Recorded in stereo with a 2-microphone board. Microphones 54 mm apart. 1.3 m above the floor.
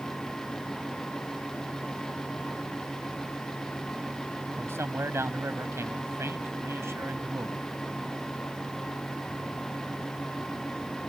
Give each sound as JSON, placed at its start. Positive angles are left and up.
{"t": 4.6, "sound": "a man speaking", "side_deg": -50}